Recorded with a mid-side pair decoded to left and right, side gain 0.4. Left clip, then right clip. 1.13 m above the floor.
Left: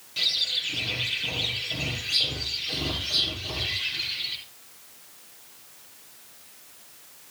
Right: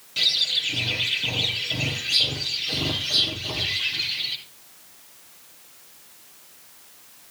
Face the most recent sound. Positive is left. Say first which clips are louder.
# right 4 dB
turn(degrees=-40)